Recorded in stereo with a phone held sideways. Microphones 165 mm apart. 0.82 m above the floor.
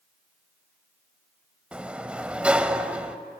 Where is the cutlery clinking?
No cutlery clinking in this recording.